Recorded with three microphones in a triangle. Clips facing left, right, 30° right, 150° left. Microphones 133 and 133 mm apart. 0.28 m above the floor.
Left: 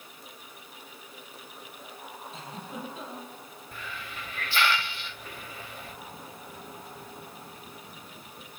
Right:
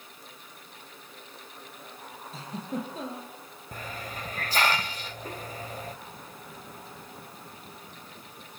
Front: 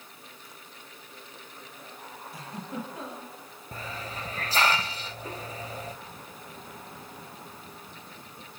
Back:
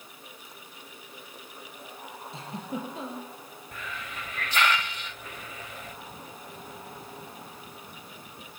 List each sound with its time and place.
2.3 s a giggle: 140° right, 7 m
3.7 s a hiss: 70° right, 0.5 m